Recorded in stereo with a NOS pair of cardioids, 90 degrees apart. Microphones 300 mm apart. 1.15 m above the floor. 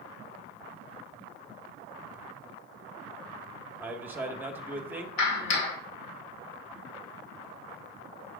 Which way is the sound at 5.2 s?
70° left.